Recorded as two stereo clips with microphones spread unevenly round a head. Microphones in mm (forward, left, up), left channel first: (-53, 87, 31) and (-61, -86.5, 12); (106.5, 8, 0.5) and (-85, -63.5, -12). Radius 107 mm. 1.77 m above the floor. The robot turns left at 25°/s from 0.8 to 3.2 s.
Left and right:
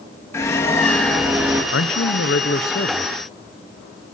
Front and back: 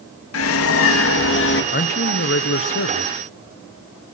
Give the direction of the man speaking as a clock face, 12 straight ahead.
10 o'clock.